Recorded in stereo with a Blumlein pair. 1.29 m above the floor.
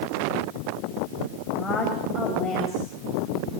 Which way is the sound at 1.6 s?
15° left.